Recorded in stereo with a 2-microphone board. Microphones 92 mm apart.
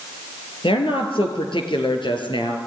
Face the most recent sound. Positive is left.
turn(degrees=60)  # may be behind; listen again after turning